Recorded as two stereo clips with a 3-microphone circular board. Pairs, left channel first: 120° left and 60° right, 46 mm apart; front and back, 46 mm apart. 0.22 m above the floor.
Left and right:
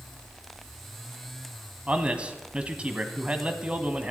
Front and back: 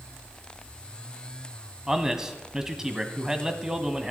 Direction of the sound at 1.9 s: 110° right.